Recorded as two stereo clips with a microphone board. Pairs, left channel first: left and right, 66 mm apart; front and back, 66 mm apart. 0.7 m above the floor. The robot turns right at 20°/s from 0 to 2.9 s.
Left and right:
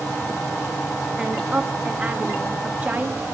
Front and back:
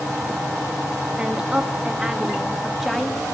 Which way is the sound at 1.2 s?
130° right.